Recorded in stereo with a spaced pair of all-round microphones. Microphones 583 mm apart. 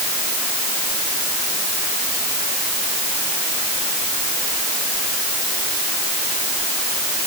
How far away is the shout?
I don't hear a shout.